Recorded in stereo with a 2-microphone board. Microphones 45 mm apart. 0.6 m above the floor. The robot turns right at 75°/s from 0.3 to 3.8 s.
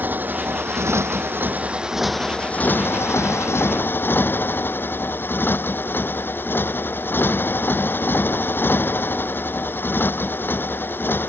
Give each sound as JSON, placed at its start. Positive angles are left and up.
{"t": 0.0, "sound": "a motorcycle", "azimuth_deg": -135}